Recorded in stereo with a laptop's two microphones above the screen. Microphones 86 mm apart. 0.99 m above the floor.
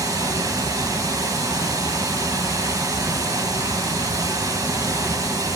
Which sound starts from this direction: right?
Running water, at 0.0 s.